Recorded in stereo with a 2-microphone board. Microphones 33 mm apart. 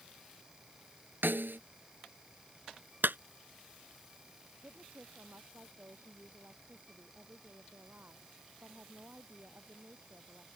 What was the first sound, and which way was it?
A snare drum, 85° right.